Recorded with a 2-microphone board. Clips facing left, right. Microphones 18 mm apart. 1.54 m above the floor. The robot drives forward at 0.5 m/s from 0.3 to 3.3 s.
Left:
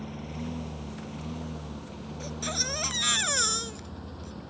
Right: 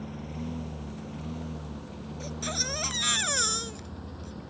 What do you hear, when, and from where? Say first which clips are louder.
0.0 s a lawn mower: even; 10° left (ahead or behind); by 4.5 s 5° left (ahead or behind)
2.2 s a baby crying: left 1 dB; 10° left (ahead or behind)